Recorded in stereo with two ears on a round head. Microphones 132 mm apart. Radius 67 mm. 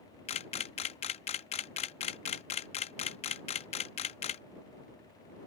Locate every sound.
0.3 s a camera shutter: 45° left (ahead or behind)